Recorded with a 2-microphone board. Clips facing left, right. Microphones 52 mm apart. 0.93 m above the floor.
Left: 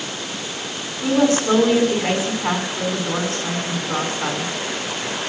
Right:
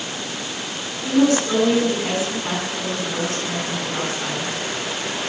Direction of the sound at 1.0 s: 45° left (ahead or behind).